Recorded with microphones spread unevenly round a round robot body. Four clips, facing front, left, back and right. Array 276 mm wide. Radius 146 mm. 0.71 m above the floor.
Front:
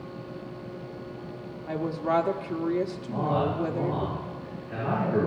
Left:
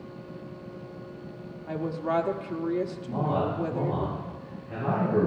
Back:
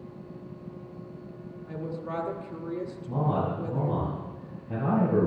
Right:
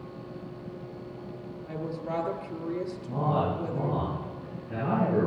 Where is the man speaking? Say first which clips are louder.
Right 2 dB, even; 165° right, 8 m.